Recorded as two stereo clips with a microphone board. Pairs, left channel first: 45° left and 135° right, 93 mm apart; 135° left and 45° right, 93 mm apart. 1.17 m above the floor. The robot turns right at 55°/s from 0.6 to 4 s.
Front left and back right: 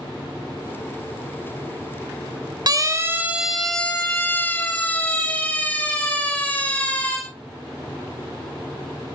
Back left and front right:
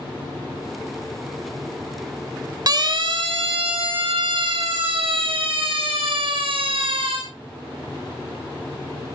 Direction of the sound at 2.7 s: 90° right.